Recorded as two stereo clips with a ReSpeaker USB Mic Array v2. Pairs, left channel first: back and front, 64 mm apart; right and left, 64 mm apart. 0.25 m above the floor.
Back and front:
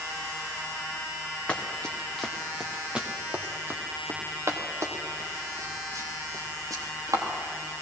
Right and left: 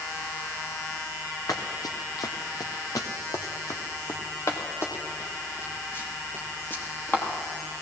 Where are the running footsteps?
110° right, 1.8 m; by 7.2 s 30° right, 4 m.